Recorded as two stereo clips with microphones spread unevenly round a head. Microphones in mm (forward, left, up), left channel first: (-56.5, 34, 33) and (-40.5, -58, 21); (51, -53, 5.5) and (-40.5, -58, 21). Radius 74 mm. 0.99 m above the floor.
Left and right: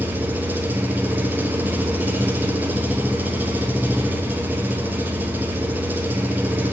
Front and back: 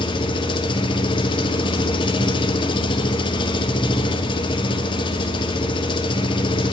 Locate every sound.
0.0 s an engine running: 10° right, 0.8 m